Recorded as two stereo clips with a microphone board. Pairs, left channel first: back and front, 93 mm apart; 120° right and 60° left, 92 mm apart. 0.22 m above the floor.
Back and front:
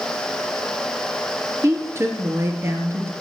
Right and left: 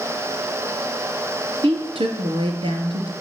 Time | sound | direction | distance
1.6 | a woman speaking | 60° left | 3.5 m